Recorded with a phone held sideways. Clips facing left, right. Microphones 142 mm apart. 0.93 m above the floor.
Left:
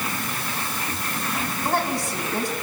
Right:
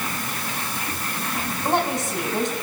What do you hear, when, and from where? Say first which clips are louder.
1.6 s a woman speaking: right 2 dB; 20° right (ahead or behind), 7.5 m